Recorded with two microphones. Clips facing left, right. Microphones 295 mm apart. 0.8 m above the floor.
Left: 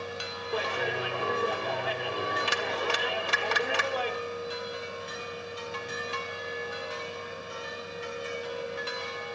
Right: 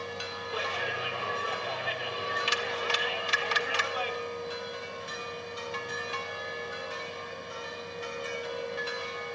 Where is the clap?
60° left (ahead or behind), 1.7 m.